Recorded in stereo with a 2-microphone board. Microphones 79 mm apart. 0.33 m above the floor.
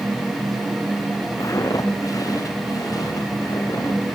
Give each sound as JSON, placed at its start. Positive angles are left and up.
{"t": 1.4, "sound": "footsteps", "side_deg": 45, "distance_m": 2.0}